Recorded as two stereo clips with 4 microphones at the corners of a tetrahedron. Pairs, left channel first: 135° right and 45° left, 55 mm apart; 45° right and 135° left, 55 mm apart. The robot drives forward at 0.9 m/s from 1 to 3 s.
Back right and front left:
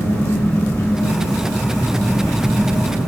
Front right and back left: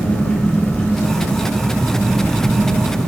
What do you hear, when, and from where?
0.0 s an engine running: 110° right, 3.5 m; by 3.1 s 130° right, 4.5 m